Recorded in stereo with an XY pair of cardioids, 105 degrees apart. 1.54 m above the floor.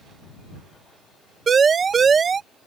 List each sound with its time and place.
1.5 s a siren: 40° right